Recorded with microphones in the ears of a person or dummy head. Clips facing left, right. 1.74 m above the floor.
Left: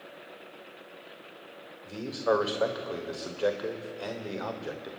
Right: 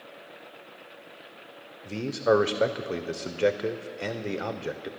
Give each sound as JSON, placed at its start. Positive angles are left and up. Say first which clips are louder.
{"t": 1.9, "sound": "a man speaking", "louder": "right 4 dB", "side_deg": -30, "distance_m": 0.9}